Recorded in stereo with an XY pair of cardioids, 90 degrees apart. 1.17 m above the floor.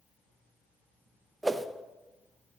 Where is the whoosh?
20° right, 0.8 m.